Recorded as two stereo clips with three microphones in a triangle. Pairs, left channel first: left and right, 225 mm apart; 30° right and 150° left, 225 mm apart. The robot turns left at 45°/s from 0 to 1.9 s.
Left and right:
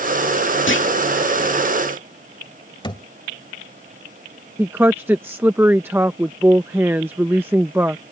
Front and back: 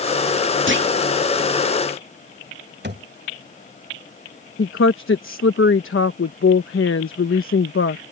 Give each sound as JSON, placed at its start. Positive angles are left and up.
{"t": 0.7, "sound": "a clunk", "azimuth_deg": 120}
{"t": 2.8, "sound": "a thud", "azimuth_deg": 150}
{"t": 4.6, "sound": "a woman speaking", "azimuth_deg": -10}